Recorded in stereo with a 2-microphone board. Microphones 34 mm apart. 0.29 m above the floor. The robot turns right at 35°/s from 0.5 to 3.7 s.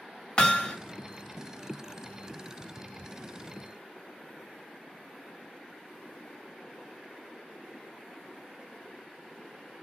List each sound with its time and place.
0.4 s hammering: 30° left (ahead or behind), 1.1 m; by 0.8 s 25° left (ahead or behind), 1.1 m